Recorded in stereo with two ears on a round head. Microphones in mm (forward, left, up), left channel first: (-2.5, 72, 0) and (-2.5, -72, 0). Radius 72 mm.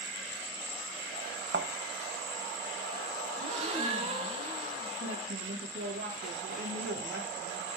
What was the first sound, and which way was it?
A thud, 65° right (ahead or behind).